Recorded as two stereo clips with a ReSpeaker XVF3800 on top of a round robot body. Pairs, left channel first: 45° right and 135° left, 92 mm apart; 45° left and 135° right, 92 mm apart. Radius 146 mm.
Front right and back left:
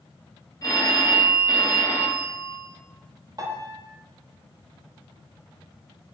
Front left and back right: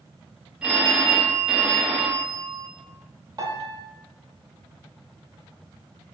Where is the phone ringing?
60° right, 1.0 m.